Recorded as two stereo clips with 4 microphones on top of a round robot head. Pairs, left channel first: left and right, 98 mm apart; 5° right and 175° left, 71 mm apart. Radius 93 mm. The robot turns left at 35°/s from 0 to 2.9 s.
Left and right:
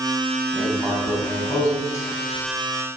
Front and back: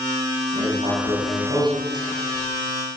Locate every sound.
0.5 s writing: 160° right, 3 m; by 2.5 s 135° left, 3 m